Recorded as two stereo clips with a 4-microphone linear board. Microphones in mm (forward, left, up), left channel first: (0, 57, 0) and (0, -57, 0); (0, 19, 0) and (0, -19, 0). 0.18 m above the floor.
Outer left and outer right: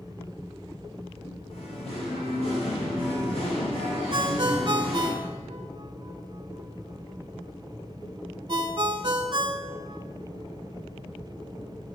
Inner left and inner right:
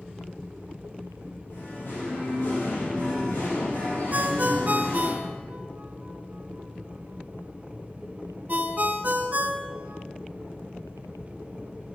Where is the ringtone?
45° right (ahead or behind), 0.8 m.